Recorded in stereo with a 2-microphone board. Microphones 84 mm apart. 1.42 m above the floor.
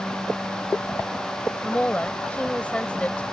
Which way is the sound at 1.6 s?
15° left (ahead or behind).